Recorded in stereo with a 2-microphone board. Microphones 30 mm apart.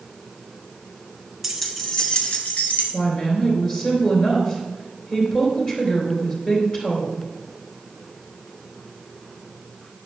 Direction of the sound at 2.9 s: 30° left (ahead or behind).